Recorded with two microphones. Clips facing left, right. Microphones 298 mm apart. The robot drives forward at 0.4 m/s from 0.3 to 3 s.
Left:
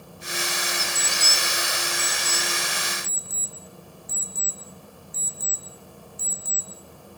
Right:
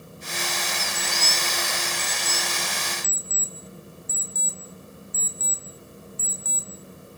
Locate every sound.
0.9 s an alarm clock: 30° left (ahead or behind), 5 m; by 6.7 s 40° left (ahead or behind), 4 m